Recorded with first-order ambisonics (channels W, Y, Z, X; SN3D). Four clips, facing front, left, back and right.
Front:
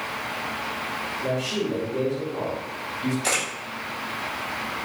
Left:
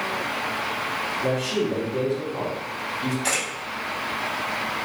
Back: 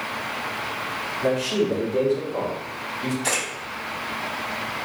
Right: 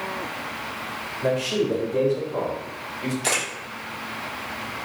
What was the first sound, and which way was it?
A man speaking, 135° right.